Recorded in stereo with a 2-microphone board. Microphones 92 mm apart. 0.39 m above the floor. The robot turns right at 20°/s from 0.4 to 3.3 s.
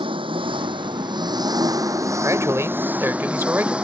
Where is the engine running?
70° right; by 3.8 s 10° right.